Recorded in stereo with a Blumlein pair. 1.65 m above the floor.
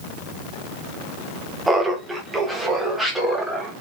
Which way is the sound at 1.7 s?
5° right.